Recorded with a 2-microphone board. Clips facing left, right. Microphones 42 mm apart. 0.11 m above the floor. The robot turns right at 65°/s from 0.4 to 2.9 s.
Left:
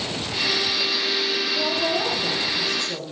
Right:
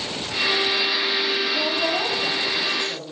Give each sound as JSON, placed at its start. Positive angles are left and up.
{"t": 1.5, "sound": "a woman speaking", "azimuth_deg": -105, "distance_m": 5.5}